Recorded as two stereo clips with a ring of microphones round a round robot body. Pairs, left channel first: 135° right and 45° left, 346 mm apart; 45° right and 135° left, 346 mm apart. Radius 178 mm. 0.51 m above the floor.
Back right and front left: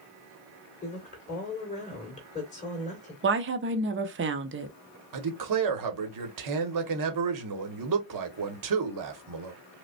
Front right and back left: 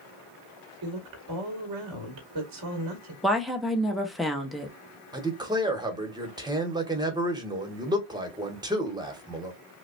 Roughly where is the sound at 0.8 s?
Behind left.